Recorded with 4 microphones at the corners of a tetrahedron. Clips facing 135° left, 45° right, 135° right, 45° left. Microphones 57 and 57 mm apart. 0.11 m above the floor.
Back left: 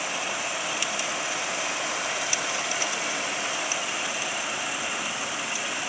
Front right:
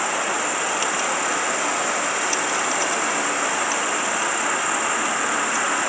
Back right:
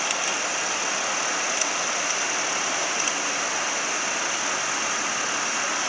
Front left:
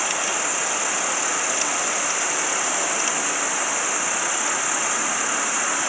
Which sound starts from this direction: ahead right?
An insect, at 0.0 s.